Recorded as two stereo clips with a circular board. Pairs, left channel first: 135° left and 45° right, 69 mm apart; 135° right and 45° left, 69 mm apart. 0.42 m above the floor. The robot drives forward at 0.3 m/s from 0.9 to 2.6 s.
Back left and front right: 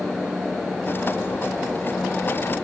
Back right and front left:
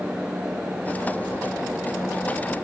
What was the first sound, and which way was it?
Only background noise.